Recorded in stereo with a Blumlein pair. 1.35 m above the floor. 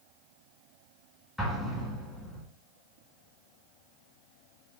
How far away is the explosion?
About 1.9 m.